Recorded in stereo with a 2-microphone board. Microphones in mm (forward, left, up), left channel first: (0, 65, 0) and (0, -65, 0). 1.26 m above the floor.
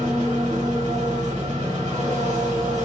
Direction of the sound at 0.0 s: 60° right (ahead or behind).